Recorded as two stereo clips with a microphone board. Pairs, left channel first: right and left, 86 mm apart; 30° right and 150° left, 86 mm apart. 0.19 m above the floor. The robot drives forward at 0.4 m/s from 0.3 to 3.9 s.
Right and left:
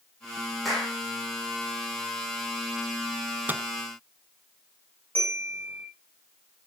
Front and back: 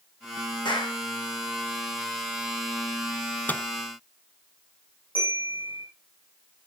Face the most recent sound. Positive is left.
turn(degrees=-20)